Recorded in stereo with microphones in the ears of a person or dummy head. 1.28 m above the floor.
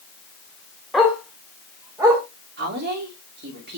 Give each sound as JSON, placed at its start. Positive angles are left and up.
{"t": 0.9, "sound": "a dog barking", "side_deg": 0, "distance_m": 1.8}
{"t": 2.6, "sound": "a woman speaking", "side_deg": -50, "distance_m": 3.0}